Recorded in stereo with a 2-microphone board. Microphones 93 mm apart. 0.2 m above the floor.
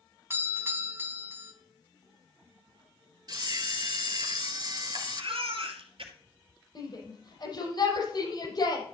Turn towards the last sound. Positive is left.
turn(degrees=50)  # may be behind; listen again after turning